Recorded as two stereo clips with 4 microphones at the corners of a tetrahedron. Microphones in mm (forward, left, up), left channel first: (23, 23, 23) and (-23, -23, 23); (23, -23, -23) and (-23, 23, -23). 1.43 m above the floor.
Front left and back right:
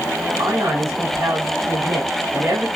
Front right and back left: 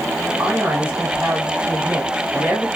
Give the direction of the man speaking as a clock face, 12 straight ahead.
5 o'clock.